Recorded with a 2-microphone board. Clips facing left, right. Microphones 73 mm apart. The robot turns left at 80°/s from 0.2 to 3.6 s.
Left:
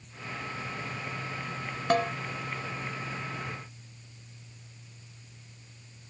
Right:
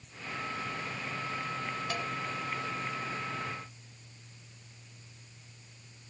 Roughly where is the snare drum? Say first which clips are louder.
Left 14 dB; left.